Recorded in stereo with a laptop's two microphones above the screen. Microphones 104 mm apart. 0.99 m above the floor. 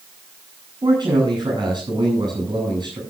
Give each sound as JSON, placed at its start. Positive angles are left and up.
{"t": 0.8, "sound": "a man speaking", "side_deg": -45, "distance_m": 9.5}